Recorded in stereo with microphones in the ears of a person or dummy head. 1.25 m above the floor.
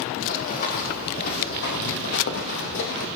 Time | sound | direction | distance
0.2 | running footsteps | 40° left (ahead or behind) | 3.5 m